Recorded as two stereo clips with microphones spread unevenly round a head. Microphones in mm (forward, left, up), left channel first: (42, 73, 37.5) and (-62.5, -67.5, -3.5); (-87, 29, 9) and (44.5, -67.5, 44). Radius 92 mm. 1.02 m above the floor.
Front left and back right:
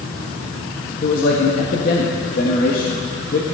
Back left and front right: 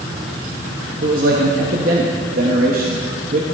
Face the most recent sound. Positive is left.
turn(degrees=10)